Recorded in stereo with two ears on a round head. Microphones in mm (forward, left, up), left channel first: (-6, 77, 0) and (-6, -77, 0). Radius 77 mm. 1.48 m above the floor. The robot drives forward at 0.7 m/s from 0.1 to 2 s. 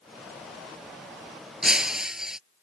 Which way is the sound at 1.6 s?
5° right (ahead or behind).